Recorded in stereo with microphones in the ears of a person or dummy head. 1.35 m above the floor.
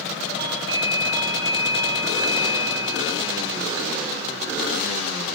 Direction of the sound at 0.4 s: 25° right (ahead or behind).